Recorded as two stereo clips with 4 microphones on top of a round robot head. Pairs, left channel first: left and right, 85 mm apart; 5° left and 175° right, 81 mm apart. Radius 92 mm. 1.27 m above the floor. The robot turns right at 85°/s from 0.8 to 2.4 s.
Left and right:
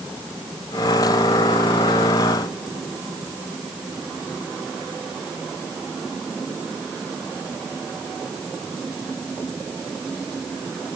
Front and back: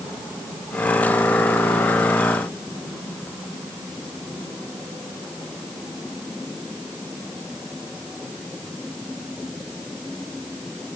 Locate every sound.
Only background noise.